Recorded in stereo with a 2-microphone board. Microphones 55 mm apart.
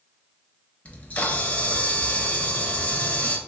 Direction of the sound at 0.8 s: 25° left (ahead or behind).